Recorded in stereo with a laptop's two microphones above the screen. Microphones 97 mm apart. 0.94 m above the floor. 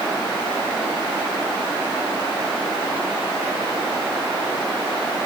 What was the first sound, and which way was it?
Only background noise.